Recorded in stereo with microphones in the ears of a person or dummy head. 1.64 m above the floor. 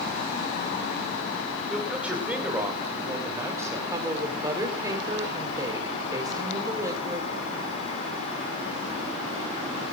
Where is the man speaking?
5° right (ahead or behind), 5 m; by 3.8 s 15° right (ahead or behind), 6.5 m.